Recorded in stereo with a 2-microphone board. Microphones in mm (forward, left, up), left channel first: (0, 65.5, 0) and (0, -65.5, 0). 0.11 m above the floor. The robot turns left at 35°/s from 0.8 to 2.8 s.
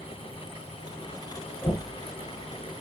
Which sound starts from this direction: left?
Knocking, at 1.6 s.